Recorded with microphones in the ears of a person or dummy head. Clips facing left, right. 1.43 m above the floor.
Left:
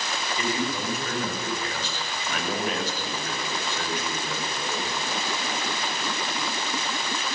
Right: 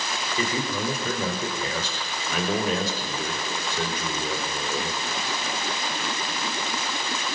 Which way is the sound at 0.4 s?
85° right.